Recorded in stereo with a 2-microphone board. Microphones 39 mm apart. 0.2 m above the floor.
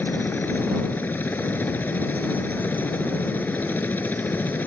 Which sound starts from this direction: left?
A helicopter, at 0.0 s.